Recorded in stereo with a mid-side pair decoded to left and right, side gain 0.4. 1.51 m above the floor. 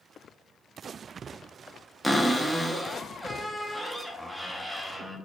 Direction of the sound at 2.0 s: 10° right.